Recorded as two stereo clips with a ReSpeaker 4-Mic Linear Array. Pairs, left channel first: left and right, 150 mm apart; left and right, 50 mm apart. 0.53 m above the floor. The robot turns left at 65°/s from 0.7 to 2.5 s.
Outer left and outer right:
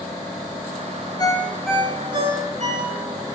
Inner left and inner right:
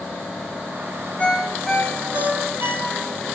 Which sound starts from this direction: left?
A ringtone, at 1.2 s.